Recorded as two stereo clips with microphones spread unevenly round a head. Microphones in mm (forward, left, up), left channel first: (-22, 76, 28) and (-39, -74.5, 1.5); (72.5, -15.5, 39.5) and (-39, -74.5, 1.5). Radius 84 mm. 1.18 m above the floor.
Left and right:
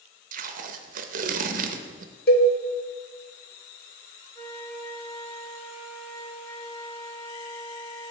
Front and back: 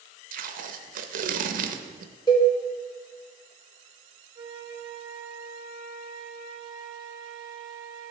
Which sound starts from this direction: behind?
A flute, at 4.3 s.